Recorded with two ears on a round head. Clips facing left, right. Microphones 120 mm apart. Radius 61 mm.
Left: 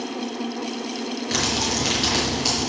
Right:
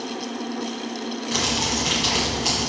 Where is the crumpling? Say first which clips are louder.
Even; 55° left (ahead or behind), 5.5 m.